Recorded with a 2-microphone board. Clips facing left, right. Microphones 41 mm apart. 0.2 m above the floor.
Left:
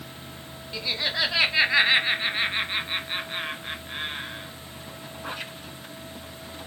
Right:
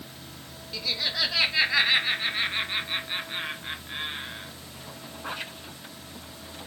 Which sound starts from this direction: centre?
Laughter, at 0.7 s.